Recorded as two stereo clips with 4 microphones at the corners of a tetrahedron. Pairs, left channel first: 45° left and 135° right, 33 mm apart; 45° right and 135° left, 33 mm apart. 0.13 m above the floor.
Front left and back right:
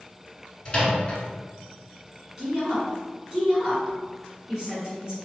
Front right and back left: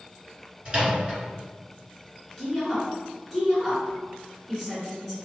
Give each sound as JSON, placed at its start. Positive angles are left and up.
{"t": 0.7, "sound": "a microwave", "azimuth_deg": 90, "distance_m": 1.4}
{"t": 2.4, "sound": "a woman speaking", "azimuth_deg": -125, "distance_m": 1.3}